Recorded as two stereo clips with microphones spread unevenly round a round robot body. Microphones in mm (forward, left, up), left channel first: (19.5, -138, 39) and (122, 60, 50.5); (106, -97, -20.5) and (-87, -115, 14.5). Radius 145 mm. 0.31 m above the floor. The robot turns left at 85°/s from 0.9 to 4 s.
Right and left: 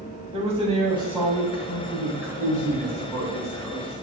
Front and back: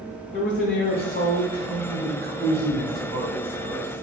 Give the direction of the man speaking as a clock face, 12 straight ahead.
12 o'clock.